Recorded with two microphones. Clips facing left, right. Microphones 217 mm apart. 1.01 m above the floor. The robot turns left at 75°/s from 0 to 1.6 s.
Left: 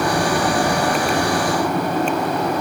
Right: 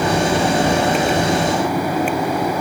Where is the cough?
No cough in this recording.